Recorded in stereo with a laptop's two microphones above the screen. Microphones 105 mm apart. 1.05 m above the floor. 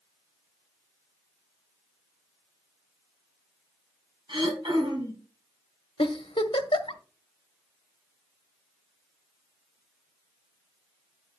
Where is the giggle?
60° left (ahead or behind), 1.1 m.